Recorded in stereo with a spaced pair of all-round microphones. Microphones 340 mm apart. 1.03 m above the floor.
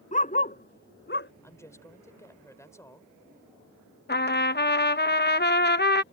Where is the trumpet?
30° left (ahead or behind).